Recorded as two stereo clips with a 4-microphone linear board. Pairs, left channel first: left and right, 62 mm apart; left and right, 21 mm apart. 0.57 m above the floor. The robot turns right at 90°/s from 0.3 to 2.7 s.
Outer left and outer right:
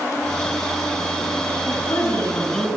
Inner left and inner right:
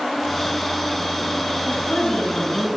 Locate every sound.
1.7 s a woman speaking: 70° left, 4 m; by 2.7 s 165° left, 4 m